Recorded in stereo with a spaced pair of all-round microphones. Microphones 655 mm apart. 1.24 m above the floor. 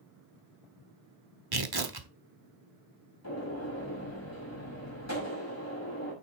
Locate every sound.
1.5 s tearing paper: 35° right (ahead or behind), 1.1 m
3.2 s a gunshot: 25° left (ahead or behind), 5.5 m